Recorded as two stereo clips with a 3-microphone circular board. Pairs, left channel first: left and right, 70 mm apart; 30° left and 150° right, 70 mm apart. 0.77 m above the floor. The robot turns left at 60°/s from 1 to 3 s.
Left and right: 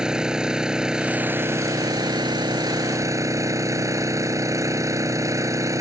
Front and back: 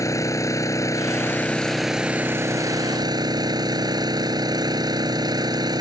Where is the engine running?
10° right; by 5.8 s 130° right.